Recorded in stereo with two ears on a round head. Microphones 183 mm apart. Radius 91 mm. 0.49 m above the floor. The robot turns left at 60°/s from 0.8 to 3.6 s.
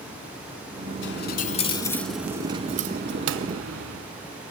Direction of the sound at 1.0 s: 65° left.